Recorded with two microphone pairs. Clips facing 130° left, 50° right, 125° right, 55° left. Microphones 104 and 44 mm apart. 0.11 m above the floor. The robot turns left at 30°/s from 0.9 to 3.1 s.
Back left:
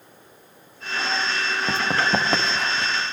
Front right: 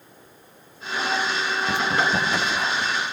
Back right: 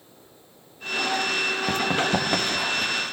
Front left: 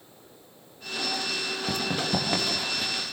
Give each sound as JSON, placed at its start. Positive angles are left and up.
{"t": 1.7, "sound": "running footsteps", "azimuth_deg": 180, "distance_m": 3.5}